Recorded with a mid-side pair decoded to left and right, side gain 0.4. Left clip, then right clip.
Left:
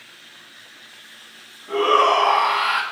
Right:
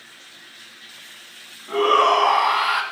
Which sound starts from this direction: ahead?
A shout, at 1.7 s.